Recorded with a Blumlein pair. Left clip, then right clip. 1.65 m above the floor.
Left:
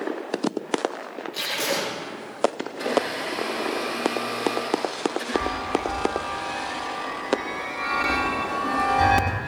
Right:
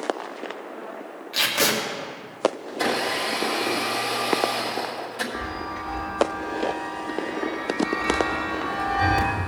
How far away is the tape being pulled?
About 3 m.